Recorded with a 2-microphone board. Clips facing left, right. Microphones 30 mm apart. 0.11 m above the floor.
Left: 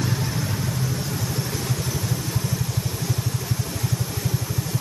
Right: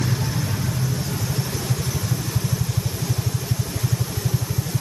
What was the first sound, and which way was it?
Only background noise.